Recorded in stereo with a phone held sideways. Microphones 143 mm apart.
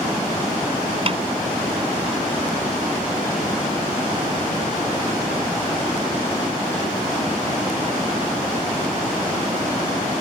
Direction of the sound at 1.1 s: 40° right (ahead or behind).